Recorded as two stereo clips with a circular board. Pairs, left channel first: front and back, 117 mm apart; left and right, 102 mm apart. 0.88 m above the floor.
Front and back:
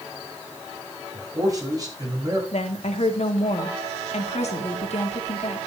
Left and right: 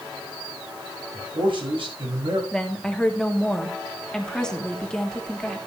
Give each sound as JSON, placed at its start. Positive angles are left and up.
{"t": 1.1, "sound": "a man speaking", "azimuth_deg": -120, "distance_m": 6.0}
{"t": 2.5, "sound": "a woman speaking", "azimuth_deg": 10, "distance_m": 2.0}